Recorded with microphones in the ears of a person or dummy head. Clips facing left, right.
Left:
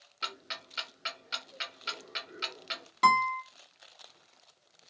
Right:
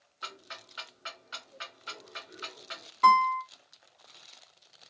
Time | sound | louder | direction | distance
0.2 | ticking | left 2 dB | 40° left (ahead or behind) | 0.9 m
3.0 | a guitar | right 3 dB | 70° left (ahead or behind) | 1.9 m